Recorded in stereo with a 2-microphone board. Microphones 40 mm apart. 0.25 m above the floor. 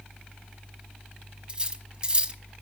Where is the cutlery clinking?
25° right (ahead or behind), 1.2 m.